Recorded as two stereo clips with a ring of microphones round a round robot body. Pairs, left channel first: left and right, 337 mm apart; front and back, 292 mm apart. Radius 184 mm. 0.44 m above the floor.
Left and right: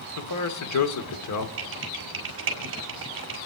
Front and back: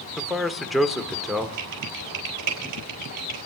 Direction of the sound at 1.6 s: 145° right.